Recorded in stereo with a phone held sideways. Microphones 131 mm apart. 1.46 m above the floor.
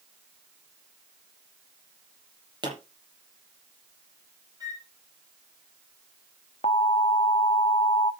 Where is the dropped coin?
No dropped coin in this recording.